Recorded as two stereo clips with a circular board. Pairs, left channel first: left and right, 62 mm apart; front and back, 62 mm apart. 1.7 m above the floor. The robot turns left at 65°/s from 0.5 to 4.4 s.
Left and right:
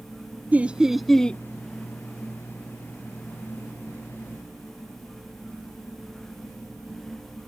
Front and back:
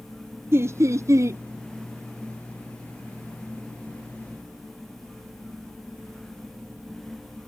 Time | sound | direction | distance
0.5 | laughter | 145° right | ?